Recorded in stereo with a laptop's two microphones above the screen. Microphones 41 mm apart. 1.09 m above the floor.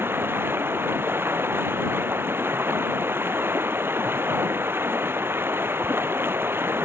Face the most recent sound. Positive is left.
turn(degrees=-70)  # may be behind; listen again after turning